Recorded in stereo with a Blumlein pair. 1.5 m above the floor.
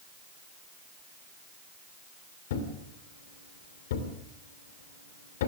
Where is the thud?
55° left, 2.5 m.